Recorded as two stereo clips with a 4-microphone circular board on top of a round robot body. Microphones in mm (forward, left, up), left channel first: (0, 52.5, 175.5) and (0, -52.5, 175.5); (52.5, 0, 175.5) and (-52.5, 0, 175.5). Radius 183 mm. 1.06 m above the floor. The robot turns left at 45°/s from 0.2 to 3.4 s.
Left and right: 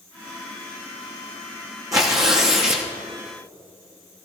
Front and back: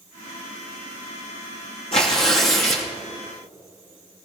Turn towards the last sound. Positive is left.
turn(degrees=-95)